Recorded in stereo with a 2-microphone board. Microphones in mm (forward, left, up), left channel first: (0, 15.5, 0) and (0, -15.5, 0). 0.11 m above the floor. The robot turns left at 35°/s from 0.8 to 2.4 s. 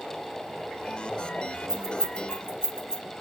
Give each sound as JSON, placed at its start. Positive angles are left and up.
{"t": 1.7, "sound": "keys jangling", "side_deg": 20, "distance_m": 1.0}